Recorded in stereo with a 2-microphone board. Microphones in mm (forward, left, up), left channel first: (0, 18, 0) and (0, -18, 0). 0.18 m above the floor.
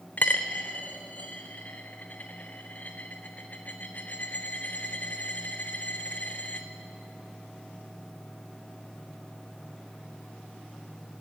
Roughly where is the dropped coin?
Left.